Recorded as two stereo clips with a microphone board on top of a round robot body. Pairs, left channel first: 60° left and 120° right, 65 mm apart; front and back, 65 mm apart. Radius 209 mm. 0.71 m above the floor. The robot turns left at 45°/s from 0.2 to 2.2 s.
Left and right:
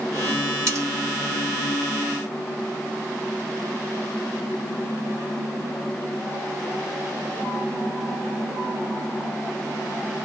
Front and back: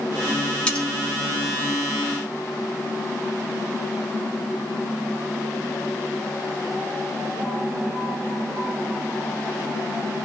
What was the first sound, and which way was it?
Cutlery clinking, 75° right.